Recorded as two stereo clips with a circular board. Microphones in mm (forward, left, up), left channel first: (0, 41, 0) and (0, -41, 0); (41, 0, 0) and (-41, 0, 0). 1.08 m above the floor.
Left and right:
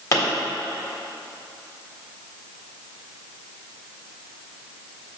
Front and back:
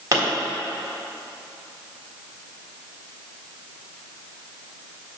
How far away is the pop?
About 1.8 m.